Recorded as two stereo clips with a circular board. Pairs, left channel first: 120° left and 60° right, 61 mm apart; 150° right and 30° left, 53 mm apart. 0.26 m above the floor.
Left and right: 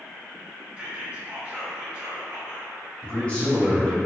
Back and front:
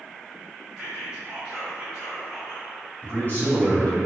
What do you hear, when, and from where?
0.8 s whispering: 50° right, 1.6 m
3.0 s a man speaking: 175° left, 1.4 m